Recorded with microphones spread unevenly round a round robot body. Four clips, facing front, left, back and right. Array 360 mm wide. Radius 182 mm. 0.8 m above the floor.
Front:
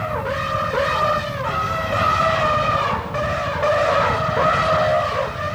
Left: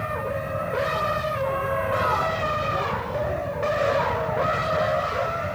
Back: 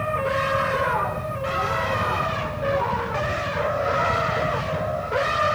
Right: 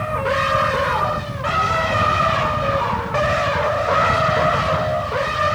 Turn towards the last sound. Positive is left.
No sound to turn to.